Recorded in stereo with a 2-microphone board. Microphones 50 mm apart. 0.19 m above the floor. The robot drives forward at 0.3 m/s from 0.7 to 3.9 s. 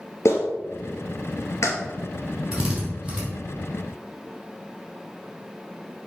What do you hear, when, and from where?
0.2 s a clap: 70° left (ahead or behind), 2.5 m
2.5 s a drill: 10° right (ahead or behind), 4 m